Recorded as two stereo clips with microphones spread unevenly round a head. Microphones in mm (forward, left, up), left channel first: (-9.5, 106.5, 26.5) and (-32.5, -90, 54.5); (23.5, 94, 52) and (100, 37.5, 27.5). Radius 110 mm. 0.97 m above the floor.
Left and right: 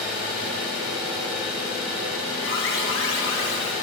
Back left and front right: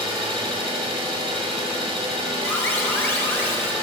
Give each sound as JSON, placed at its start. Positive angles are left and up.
{"t": 0.0, "sound": "an engine running", "azimuth_deg": -10, "distance_m": 1.5}
{"t": 2.4, "sound": "an alarm", "azimuth_deg": 70, "distance_m": 1.6}